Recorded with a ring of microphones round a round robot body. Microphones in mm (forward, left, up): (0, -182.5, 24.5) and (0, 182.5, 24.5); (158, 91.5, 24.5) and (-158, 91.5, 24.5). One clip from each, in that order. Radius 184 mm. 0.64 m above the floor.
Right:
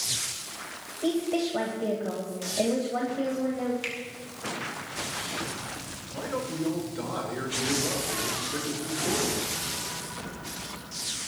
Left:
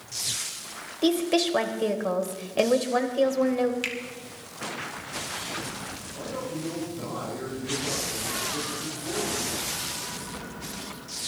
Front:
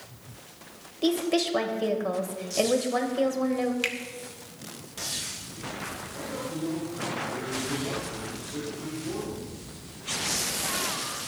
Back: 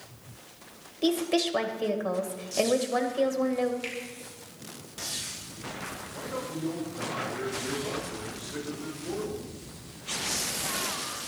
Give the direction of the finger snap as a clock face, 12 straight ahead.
11 o'clock.